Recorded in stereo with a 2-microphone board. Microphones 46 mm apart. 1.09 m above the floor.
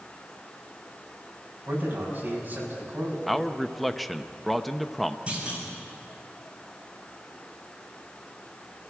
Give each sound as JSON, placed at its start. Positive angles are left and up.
{"t": 1.7, "sound": "a man speaking", "side_deg": -40, "distance_m": 6.5}
{"t": 3.3, "sound": "a man speaking", "side_deg": 0, "distance_m": 0.7}
{"t": 5.3, "sound": "a clunk", "side_deg": -25, "distance_m": 6.0}